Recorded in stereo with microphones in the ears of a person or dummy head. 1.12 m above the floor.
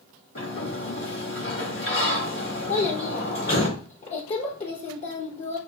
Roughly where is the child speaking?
Left.